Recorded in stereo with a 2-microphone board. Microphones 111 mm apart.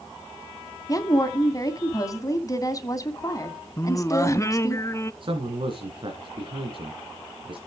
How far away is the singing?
About 0.6 m.